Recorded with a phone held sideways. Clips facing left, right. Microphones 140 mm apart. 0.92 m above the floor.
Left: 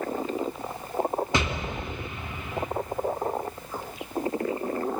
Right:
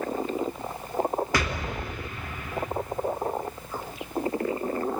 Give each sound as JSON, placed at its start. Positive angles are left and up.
{"t": 1.3, "sound": "an explosion", "side_deg": 20, "distance_m": 1.0}